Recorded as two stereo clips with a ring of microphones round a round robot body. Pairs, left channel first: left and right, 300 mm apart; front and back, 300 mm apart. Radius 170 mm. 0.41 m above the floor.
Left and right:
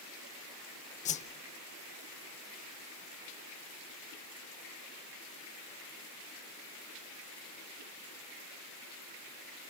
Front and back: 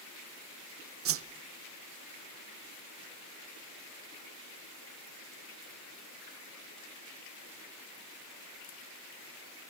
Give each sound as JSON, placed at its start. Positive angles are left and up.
{"t": 1.1, "sound": "a whoosh", "azimuth_deg": 150, "distance_m": 0.7}